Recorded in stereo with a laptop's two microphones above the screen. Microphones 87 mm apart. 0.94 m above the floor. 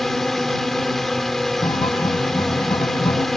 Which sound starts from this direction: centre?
A drone, at 0.0 s.